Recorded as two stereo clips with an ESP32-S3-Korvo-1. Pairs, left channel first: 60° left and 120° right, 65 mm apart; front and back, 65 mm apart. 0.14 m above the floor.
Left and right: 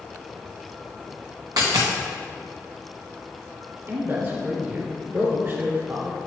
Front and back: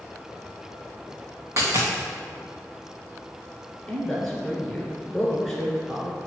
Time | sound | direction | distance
1.6 | a dropped coin | 135° right | 2.5 m
3.9 | a man speaking | 85° right | 2 m